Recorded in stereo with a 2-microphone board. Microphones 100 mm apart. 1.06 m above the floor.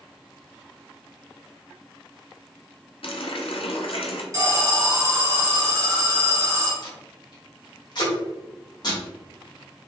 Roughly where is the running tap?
Left.